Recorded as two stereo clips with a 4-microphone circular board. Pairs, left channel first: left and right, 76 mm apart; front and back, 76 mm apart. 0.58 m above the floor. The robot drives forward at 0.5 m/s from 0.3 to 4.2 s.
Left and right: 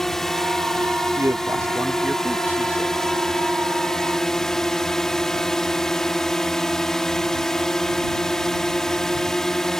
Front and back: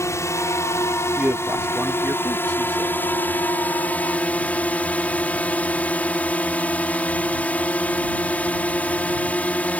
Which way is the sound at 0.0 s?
10° left.